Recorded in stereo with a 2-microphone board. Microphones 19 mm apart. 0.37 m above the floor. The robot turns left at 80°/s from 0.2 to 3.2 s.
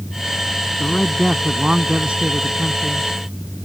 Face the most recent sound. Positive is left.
turn(degrees=-170)